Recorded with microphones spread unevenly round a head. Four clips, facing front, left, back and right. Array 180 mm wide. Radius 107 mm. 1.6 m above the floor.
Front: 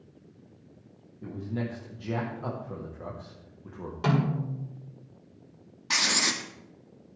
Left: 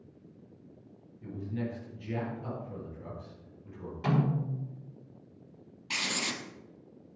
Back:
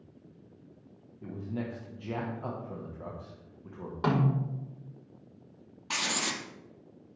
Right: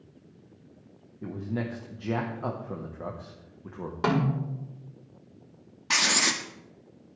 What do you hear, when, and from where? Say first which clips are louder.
1.2 s a man speaking: right 4 dB, front 3 dB; 85° right, 1.7 m
4.0 s a snare drum: right 3 dB, front 1 dB; 95° right, 5 m
5.9 s writing: right 8 dB, front 4 dB; 80° right, 1.2 m